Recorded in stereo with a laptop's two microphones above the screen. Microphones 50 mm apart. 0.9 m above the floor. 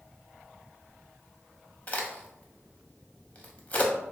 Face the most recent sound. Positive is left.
turn(degrees=25)  # may be behind; listen again after turning